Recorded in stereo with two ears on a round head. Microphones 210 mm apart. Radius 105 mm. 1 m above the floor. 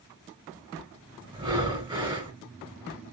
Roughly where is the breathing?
Right.